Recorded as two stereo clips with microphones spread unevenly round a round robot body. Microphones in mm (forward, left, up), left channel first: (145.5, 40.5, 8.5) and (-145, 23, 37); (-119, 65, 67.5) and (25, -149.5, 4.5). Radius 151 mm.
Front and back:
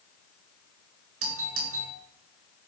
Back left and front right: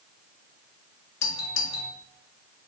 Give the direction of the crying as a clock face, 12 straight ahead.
I don't hear crying.